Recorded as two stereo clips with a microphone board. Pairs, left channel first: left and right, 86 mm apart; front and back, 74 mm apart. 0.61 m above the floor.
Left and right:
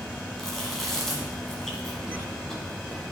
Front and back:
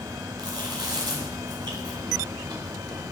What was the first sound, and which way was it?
Chewing, 175° left.